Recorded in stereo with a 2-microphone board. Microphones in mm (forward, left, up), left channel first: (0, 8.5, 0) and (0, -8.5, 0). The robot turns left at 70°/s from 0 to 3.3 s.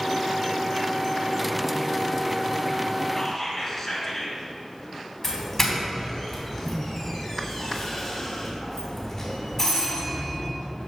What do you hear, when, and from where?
3.1 s whispering: 35° left (ahead or behind), 2 m; by 4.4 s 25° left (ahead or behind), 2 m
5.2 s a doorbell: 25° left (ahead or behind), 2 m